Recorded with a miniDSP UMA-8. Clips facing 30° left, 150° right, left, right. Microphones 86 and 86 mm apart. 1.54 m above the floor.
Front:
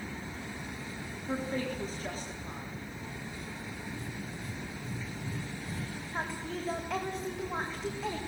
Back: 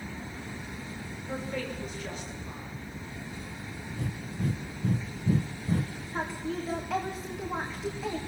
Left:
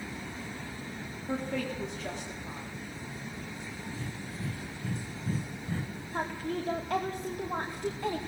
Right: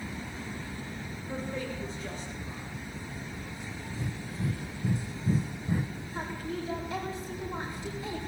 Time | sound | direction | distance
1.3 | a woman speaking | 85° left | 4 m
4.0 | breathing | 165° right | 0.8 m
6.1 | a woman speaking | 125° left | 2.5 m